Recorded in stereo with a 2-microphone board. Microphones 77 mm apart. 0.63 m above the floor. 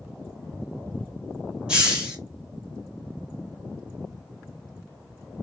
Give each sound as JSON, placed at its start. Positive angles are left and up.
{"t": 1.7, "sound": "a hiss", "side_deg": -10, "distance_m": 1.5}